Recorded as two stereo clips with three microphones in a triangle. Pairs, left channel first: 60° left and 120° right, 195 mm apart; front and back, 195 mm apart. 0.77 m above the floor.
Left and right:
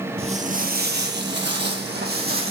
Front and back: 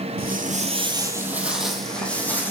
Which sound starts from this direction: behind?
Footsteps, at 0.2 s.